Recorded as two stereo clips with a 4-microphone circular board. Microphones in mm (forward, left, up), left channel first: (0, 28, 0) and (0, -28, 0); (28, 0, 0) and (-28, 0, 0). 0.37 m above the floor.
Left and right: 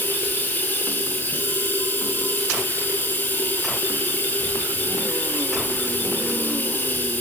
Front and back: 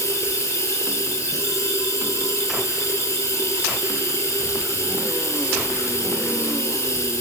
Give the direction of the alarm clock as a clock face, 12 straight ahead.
No alarm clock in this recording.